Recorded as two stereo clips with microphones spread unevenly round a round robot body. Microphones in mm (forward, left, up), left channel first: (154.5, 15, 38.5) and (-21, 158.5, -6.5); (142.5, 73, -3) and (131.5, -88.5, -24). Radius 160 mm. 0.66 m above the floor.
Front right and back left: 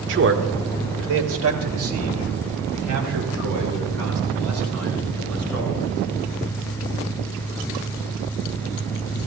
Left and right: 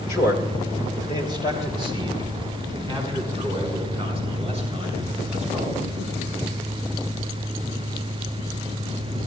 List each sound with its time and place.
0.1 s a man speaking: 130° left, 1.6 m; by 5.8 s 170° left, 7 m